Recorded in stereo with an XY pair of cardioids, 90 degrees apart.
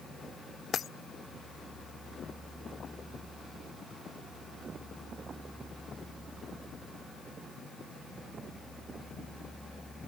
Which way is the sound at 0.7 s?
60° left.